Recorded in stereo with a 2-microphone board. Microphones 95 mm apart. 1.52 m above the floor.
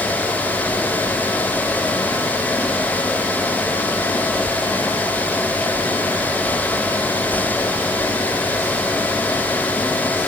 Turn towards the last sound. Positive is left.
No sound to turn to.